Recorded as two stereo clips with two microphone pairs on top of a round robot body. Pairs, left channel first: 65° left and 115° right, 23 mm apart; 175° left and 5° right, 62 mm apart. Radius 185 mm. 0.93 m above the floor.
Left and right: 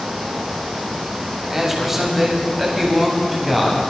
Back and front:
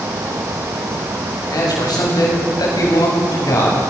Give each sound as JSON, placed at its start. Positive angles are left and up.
{"t": 1.5, "sound": "a man speaking", "azimuth_deg": 170, "distance_m": 7.0}